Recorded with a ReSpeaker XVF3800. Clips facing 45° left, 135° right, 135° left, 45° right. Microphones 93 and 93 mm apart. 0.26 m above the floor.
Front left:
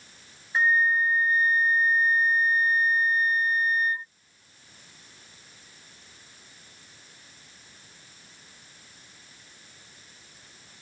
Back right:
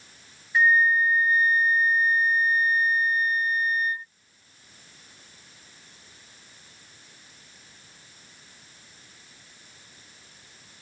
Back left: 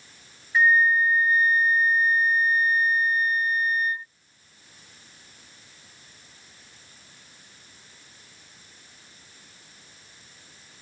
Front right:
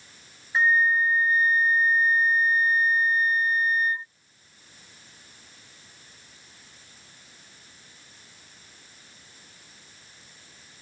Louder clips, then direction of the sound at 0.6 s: Back right 3 dB, back left 2 dB; straight ahead.